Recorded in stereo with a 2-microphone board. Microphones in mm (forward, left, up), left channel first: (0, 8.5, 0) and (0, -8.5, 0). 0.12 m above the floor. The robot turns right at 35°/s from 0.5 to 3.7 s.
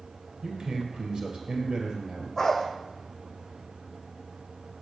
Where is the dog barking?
30° left (ahead or behind), 2 m; by 2.7 s 20° left (ahead or behind), 2 m.